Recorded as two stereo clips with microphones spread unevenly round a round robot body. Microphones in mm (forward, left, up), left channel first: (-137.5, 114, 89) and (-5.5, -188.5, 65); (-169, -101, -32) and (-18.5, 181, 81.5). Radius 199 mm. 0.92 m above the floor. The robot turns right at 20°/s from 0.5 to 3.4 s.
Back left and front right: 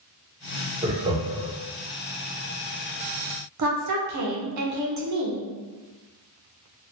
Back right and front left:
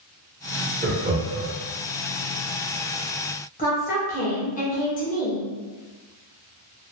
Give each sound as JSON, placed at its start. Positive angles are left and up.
{"t": 0.8, "sound": "laughter", "azimuth_deg": -25, "distance_m": 0.8}
{"t": 3.6, "sound": "a woman speaking", "azimuth_deg": -75, "distance_m": 0.9}